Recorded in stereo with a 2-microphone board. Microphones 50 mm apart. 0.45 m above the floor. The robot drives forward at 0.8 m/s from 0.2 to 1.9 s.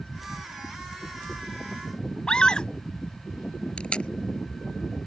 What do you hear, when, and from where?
2.3 s a scream: 15° left (ahead or behind)
3.8 s tape being pulled: 20° left (ahead or behind)